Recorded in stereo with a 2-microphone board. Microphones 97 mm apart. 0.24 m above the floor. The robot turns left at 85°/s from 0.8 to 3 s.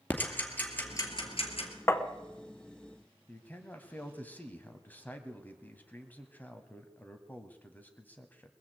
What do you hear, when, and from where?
0.1 s ticking: 20° left (ahead or behind), 2.5 m; by 1.7 s 80° left, 2.5 m
1.9 s tapping: 25° left (ahead or behind), 0.8 m; by 2.0 s 15° left (ahead or behind), 0.8 m
3.3 s a man speaking: 15° left (ahead or behind), 1.5 m